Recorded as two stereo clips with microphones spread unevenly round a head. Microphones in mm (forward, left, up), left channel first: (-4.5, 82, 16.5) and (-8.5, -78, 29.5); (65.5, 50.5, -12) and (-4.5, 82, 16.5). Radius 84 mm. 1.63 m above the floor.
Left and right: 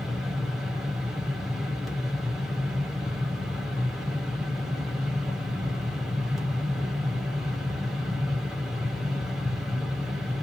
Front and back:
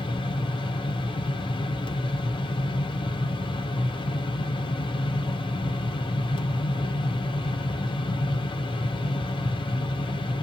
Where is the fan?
5° right, 0.7 m.